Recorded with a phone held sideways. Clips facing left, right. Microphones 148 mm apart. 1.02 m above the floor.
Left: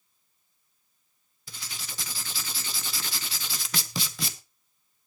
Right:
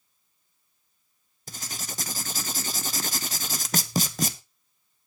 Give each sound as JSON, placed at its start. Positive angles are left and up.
{"t": 1.5, "sound": "writing", "side_deg": -45, "distance_m": 1.0}